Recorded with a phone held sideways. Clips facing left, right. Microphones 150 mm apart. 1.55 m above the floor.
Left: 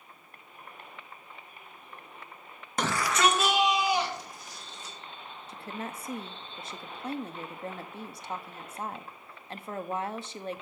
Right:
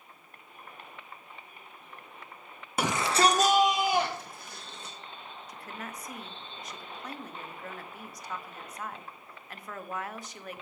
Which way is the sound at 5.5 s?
30° left (ahead or behind).